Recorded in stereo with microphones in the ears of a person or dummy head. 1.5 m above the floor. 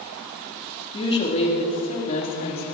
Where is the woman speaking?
35° left (ahead or behind), 3 m; by 2.6 s 50° left (ahead or behind), 4 m.